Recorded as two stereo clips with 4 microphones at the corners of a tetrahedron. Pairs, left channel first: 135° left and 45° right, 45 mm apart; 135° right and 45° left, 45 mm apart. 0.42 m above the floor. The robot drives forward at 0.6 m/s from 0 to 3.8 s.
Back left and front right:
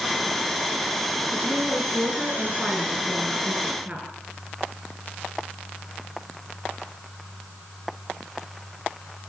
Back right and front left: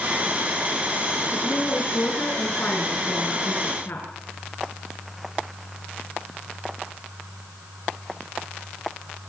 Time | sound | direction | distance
1.3 | a woman speaking | 90° right | 5.5 m